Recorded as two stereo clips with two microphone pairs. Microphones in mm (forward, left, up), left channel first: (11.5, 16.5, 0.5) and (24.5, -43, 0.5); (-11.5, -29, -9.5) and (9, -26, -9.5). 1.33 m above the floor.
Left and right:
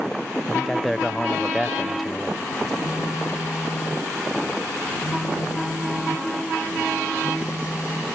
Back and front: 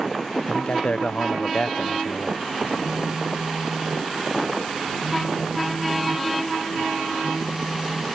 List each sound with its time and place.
0.5 s a man speaking: 170° right
2.8 s a phone buzzing: 70° left